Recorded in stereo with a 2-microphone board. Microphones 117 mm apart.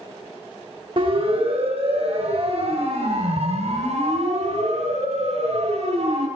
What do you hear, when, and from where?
1.0 s a siren: 55° right (ahead or behind), 3 m; by 6.3 s 75° right (ahead or behind), 7 m